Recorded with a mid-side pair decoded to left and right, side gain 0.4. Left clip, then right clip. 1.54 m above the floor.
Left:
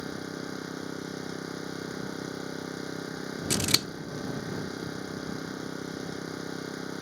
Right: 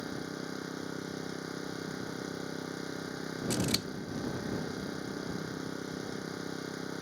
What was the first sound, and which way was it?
An engine running, 20° left.